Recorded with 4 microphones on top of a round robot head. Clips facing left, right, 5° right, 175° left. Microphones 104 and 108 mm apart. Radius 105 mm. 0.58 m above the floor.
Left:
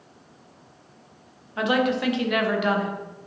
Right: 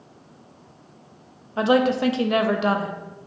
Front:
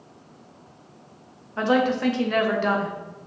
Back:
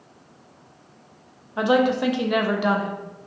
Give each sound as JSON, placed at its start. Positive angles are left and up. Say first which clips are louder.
{"t": 1.6, "sound": "a woman speaking", "louder": "right 4 dB, back 2 dB", "azimuth_deg": -120, "distance_m": 0.6}